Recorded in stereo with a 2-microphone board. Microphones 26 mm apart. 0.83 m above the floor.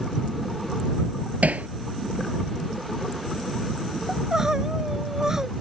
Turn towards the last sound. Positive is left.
turn(degrees=-25)  # may be behind; listen again after turning